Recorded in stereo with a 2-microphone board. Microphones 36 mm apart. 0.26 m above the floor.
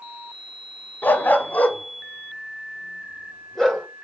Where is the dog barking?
60° left (ahead or behind), 0.9 m; by 3.9 s 5° left (ahead or behind), 2.0 m.